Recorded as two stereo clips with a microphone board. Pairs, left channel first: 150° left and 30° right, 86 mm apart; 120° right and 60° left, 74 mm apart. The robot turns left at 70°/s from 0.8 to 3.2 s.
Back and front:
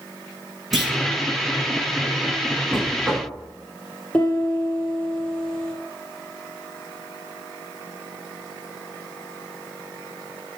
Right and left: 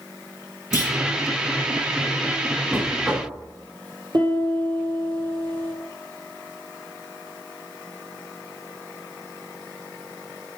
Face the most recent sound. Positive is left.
turn(degrees=70)